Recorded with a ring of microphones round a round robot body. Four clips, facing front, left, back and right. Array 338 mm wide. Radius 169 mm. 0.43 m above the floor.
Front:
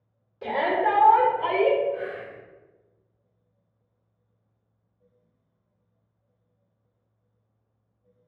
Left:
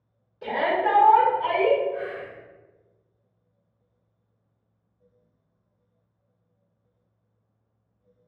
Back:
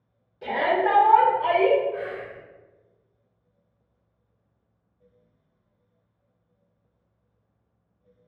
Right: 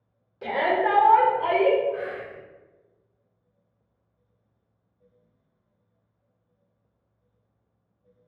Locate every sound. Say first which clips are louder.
0.4 s a shout: right 1 dB, back 1 dB; 65° right, 1.6 m; by 1.8 s 30° right, 2.5 m
1.9 s whispering: even, even; 115° right, 0.9 m